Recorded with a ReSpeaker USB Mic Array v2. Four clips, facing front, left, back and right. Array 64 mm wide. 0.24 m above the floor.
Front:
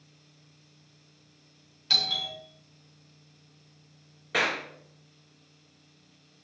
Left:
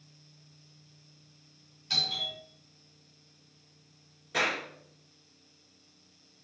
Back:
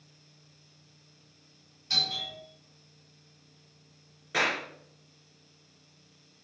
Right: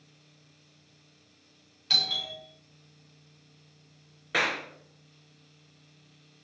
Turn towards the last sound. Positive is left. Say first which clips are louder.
# right 2 dB, front 1 dB
turn(degrees=-85)